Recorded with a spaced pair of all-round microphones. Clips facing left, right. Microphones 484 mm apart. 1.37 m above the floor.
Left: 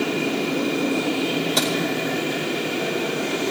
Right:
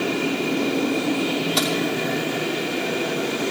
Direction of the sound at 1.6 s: 65° left (ahead or behind).